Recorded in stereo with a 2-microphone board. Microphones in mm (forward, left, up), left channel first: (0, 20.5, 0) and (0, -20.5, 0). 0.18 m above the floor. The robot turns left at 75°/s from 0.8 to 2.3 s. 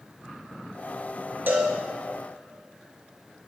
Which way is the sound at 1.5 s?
50° right (ahead or behind).